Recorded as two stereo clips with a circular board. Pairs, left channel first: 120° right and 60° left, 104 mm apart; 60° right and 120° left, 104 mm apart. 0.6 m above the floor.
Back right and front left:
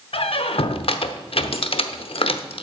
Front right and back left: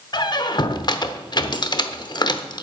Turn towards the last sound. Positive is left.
turn(degrees=-105)